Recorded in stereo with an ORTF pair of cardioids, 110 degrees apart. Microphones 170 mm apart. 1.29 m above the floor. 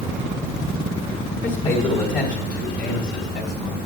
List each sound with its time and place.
1.4 s a man speaking: 55° left, 4 m; by 3.8 s 75° left, 3.5 m